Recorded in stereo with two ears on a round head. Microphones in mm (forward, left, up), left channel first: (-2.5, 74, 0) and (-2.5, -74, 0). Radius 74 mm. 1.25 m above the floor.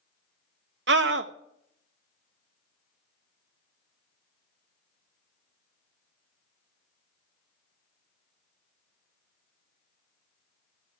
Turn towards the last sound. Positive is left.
turn(degrees=-75)  # may be behind; listen again after turning